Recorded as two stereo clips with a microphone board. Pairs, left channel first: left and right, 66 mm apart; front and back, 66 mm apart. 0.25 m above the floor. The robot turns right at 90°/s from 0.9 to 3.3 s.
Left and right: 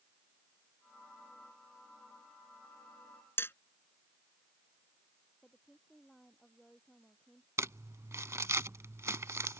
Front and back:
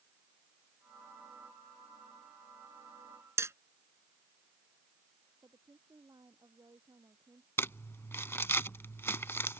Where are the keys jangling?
No keys jangling in this recording.